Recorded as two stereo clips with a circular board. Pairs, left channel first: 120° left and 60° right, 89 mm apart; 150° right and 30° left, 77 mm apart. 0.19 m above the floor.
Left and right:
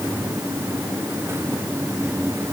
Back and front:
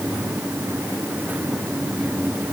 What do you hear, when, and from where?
Only background noise.